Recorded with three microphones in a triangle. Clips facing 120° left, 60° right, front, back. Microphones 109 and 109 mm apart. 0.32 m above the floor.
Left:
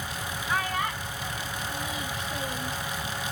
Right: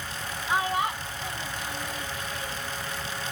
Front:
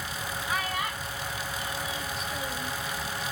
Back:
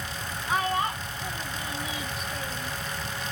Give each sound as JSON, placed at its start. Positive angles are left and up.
{"t": 0.5, "sound": "a child speaking", "azimuth_deg": -125}